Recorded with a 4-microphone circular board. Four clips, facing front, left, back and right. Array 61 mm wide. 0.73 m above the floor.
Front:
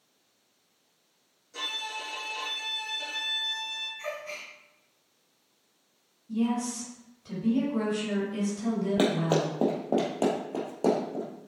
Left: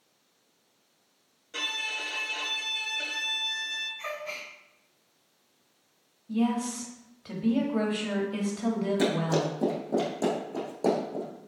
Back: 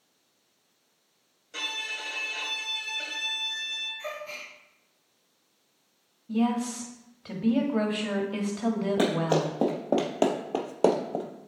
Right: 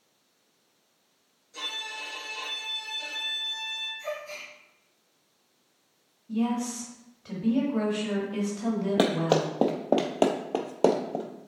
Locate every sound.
1.5 s a violin: 130° left, 2 m
4.0 s a gasp: 80° left, 2.5 m
6.3 s a woman speaking: 170° left, 1.4 m
9.0 s running footsteps: 80° right, 1.5 m; by 11.2 s 145° right, 1.4 m